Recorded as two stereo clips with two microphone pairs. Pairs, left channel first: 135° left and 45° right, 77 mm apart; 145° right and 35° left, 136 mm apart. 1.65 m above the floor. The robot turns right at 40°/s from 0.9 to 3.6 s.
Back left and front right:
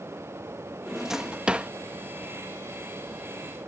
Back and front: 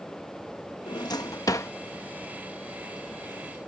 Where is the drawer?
135° right; by 1.7 s 100° right.